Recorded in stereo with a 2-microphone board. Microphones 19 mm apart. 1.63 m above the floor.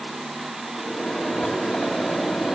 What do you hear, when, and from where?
0.8 s a microwave: 65° left (ahead or behind), 2.5 m